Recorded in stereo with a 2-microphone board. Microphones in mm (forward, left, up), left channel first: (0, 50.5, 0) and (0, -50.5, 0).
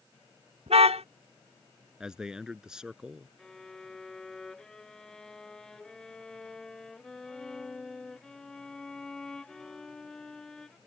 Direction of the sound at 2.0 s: 5° right (ahead or behind).